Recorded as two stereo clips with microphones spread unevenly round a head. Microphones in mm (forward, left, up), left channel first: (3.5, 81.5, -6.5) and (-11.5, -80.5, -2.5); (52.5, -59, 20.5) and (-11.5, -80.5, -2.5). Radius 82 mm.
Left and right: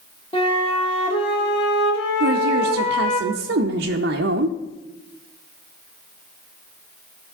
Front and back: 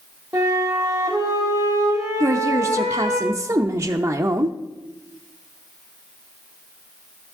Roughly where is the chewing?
No chewing in this recording.